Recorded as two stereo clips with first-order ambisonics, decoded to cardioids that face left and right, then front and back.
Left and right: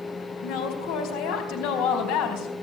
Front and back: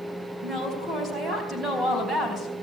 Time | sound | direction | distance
0.4 | a woman speaking | 105° left | 4 m